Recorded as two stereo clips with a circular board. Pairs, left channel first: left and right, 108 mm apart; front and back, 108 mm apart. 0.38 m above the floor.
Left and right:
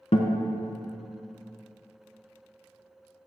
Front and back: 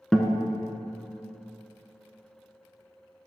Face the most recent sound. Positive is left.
turn(degrees=85)